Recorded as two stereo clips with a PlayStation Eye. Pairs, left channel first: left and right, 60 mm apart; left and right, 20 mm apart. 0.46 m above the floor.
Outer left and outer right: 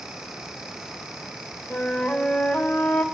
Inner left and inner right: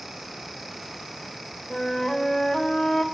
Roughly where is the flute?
Left.